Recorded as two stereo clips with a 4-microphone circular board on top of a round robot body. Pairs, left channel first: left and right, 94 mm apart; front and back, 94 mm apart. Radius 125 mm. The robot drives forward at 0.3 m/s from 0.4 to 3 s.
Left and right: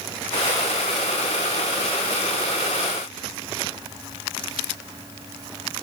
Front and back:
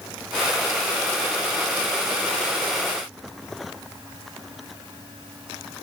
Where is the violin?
No violin in this recording.